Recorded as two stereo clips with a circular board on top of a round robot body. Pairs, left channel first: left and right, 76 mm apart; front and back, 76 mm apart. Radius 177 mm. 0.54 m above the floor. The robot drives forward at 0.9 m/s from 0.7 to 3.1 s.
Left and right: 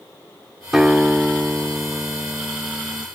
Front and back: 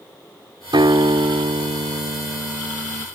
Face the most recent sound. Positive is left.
turn(degrees=-175)